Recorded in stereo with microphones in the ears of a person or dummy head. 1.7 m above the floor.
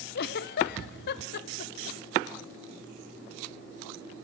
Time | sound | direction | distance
0.1 | a giggle | 60° left (ahead or behind) | 0.9 m